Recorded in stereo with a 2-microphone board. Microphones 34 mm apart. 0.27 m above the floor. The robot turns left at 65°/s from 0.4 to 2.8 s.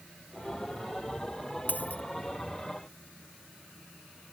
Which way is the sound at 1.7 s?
70° left (ahead or behind).